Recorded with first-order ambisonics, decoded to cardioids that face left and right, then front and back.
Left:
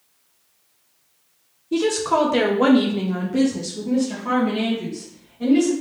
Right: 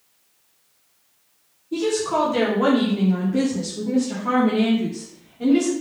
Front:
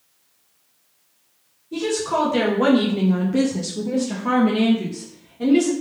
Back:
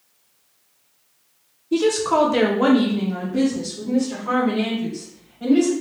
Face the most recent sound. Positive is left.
turn(degrees=-10)